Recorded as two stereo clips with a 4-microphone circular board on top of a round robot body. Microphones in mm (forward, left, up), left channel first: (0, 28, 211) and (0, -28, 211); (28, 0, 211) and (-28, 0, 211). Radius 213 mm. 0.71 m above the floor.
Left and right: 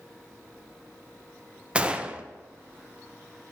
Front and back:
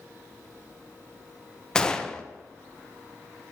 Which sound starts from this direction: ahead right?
A gunshot, at 1.8 s.